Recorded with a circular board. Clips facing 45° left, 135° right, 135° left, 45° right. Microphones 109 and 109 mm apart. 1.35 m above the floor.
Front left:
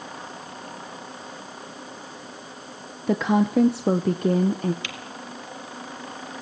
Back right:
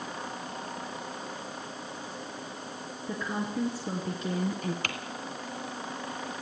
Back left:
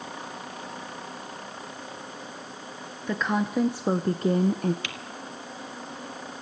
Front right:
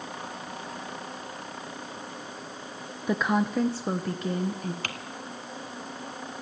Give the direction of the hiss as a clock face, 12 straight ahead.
I don't hear a hiss.